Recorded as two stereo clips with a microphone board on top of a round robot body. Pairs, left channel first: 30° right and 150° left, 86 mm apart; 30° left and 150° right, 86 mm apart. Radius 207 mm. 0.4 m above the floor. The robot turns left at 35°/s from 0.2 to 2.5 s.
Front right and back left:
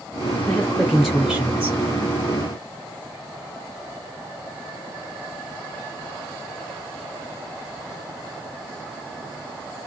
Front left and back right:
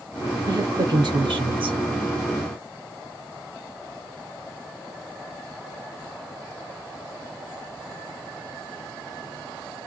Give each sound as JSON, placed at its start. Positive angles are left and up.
{"t": 0.5, "sound": "a woman speaking", "azimuth_deg": -105, "distance_m": 3.0}